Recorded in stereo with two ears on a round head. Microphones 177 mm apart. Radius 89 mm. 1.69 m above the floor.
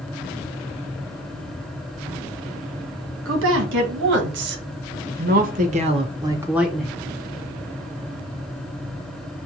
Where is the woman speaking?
70° right (ahead or behind), 1.8 m; by 7.0 s 5° left (ahead or behind), 0.8 m.